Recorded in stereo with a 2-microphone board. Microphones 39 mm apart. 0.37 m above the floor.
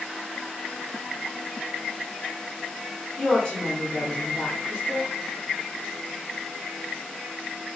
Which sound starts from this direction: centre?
A woman speaking, at 3.2 s.